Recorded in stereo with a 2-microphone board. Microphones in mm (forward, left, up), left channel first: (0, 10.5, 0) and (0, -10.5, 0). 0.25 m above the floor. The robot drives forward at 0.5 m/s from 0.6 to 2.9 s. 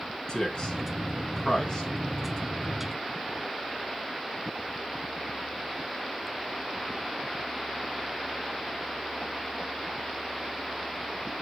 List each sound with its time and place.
0.3 s a man speaking: 40° left (ahead or behind), 2.5 m; by 1.9 s 35° left (ahead or behind), 3 m